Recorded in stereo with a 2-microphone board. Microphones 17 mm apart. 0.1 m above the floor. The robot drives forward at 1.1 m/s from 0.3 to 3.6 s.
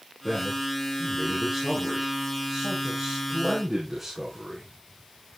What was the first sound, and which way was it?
A man speaking, 10° right (ahead or behind).